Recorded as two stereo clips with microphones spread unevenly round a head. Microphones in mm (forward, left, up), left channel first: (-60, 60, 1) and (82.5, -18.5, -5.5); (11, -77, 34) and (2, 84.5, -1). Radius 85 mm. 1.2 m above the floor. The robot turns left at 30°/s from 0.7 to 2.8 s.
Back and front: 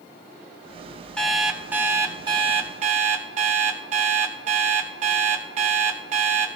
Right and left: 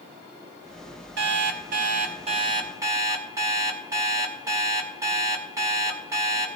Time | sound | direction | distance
1.2 | an alarm clock | 70° left | 1.7 m